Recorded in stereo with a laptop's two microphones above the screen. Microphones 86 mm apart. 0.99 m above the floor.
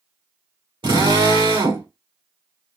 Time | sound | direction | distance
0.8 | a drill | 75° right (ahead or behind) | 1.9 m